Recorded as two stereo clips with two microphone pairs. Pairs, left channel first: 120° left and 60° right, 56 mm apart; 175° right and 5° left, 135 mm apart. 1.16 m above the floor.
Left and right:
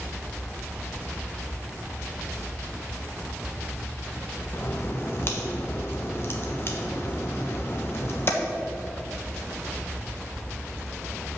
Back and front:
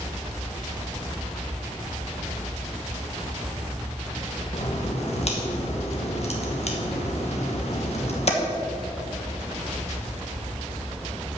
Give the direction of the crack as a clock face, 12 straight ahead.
7 o'clock.